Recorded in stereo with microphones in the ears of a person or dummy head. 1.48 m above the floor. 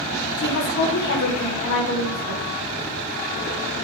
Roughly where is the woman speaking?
Left.